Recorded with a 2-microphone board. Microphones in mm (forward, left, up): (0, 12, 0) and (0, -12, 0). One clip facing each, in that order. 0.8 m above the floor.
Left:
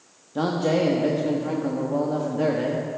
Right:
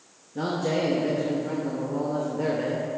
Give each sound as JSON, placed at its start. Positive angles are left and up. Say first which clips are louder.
{"t": 0.3, "sound": "a man speaking", "louder": "left 4 dB", "side_deg": 50, "distance_m": 1.0}